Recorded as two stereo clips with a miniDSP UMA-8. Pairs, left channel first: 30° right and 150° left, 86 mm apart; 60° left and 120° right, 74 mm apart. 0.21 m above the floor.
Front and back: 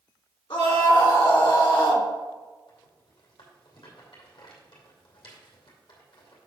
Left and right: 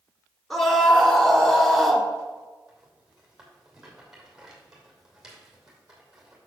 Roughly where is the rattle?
Ahead right.